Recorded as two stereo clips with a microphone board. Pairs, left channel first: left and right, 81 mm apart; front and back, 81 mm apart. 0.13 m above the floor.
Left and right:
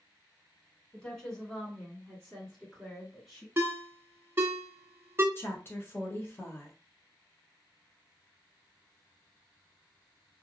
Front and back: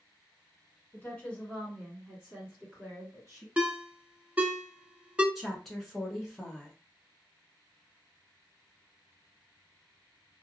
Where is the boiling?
I don't hear boiling.